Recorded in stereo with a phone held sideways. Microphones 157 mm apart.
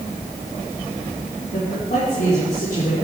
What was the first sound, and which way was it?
A man speaking, 70° left (ahead or behind).